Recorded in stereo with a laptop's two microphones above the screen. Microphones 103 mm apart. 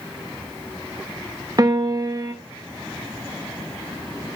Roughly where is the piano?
Right.